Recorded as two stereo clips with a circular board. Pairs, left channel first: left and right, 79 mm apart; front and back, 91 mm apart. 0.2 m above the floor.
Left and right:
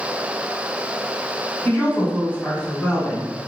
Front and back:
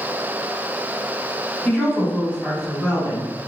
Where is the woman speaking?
75° left, 1.0 m; by 3.3 s 145° left, 1.6 m.